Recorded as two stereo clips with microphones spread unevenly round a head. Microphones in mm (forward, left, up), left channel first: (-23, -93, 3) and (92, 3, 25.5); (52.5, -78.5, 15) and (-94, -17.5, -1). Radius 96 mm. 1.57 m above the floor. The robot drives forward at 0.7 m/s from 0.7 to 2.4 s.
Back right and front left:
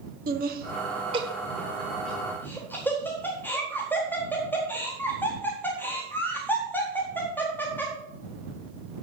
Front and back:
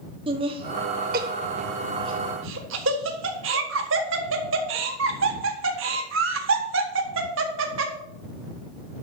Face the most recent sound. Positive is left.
turn(degrees=140)